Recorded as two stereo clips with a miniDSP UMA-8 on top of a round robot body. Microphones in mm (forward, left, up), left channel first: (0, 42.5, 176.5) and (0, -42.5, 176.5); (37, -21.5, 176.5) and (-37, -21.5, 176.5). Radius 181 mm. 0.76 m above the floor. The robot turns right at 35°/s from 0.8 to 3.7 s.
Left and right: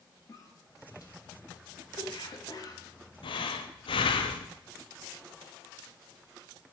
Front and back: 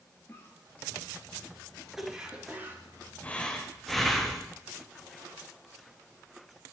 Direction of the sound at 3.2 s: 70° left.